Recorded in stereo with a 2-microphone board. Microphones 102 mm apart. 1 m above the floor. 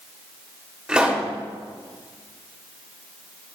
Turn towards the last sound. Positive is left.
turn(degrees=-10)  # may be behind; listen again after turning